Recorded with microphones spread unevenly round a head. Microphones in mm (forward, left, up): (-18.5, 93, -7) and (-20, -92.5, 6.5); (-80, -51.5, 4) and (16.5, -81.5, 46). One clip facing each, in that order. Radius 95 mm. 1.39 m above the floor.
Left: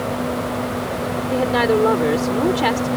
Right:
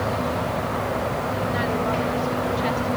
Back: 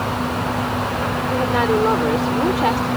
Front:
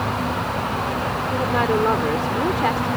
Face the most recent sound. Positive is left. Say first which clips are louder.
# left 12 dB, back 2 dB
turn(degrees=80)